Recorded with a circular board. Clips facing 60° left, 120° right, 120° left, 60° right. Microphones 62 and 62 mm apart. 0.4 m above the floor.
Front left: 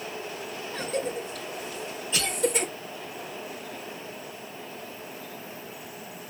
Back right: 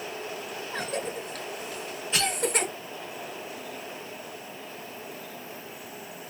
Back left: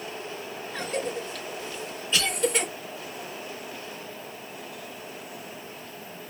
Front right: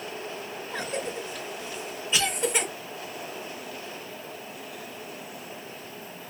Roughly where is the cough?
Behind right.